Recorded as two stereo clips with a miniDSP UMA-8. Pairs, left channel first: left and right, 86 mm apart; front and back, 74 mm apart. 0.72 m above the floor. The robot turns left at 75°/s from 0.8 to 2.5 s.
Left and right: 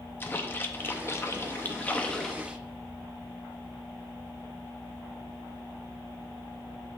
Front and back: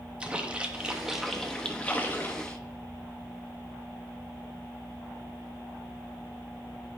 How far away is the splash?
About 0.6 m.